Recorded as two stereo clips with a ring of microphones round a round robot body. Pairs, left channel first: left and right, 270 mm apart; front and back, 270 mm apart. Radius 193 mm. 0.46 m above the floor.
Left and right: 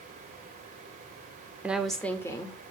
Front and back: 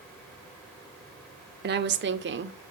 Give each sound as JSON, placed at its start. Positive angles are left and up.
{"t": 1.6, "sound": "a woman speaking", "azimuth_deg": -170, "distance_m": 1.2}